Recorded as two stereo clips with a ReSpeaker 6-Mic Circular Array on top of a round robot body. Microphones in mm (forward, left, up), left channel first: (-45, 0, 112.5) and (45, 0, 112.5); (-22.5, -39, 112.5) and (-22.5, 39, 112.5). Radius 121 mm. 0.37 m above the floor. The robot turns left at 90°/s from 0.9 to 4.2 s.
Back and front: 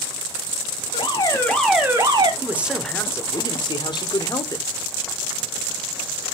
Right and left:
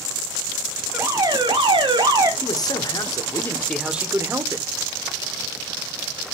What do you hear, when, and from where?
0.9 s an alarm: 155° left, 2.0 m; by 2.3 s 35° left, 2.0 m
2.4 s a man speaking: 55° right, 1.2 m; by 4.7 s 145° left, 1.2 m